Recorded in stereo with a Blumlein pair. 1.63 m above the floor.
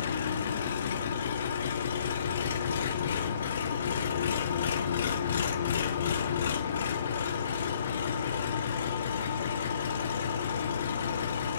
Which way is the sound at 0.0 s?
65° left.